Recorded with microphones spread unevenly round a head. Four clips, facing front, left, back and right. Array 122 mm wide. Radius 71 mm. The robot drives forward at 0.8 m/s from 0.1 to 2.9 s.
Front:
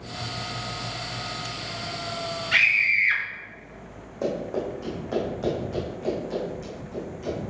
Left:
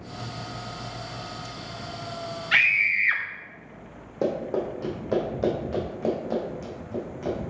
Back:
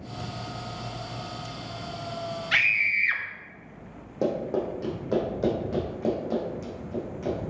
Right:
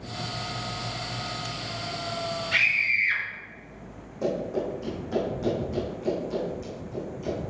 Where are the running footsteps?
150° left, 2.5 m; by 7.4 s 125° left, 4 m.